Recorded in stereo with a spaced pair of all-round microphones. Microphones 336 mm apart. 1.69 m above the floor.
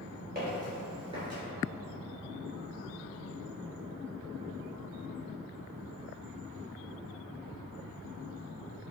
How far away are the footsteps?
About 1.9 m.